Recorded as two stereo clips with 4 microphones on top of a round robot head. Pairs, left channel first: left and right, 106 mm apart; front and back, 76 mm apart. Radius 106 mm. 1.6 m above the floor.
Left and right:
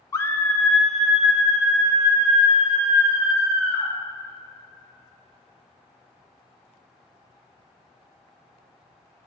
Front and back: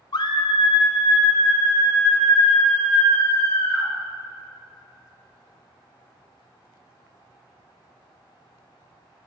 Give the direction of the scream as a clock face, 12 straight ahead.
11 o'clock.